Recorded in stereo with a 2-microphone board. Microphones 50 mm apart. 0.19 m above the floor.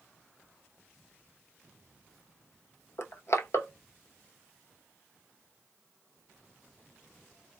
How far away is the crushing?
About 0.7 m.